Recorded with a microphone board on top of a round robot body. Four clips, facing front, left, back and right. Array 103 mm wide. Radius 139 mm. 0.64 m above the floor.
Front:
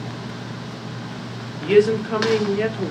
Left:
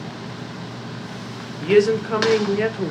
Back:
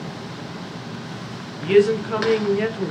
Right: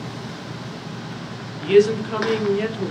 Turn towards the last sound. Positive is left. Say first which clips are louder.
# right 1 dB, even
turn(degrees=85)